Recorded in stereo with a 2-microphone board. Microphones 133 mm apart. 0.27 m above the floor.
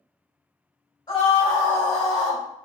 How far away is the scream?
About 1.1 m.